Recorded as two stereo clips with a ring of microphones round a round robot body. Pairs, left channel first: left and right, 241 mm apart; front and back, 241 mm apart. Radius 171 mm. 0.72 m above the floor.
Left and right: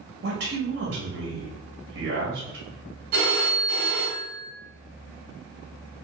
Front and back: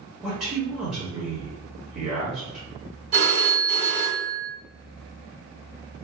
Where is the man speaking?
95° right, 1.3 m.